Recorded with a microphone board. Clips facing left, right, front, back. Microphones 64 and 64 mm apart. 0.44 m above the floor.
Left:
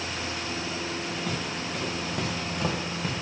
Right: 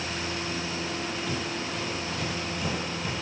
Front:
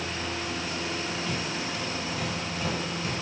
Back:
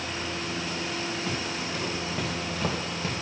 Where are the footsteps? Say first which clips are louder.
Even, even; 115° left, 3 m; by 3.1 s 125° left, 2 m.